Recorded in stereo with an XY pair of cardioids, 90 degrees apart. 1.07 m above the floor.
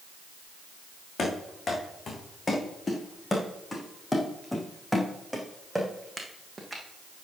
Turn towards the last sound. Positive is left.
turn(degrees=-25)